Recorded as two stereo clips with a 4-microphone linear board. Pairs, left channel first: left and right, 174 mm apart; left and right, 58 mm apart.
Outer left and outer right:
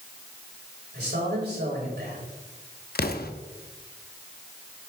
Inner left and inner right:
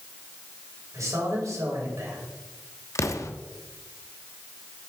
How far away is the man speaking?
About 6 m.